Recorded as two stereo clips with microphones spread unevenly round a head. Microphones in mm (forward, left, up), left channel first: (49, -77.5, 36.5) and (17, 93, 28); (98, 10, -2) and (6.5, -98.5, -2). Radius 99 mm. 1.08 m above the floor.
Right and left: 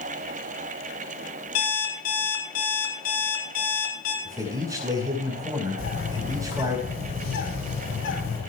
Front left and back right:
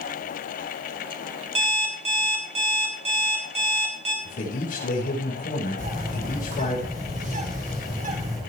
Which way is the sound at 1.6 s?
85° right.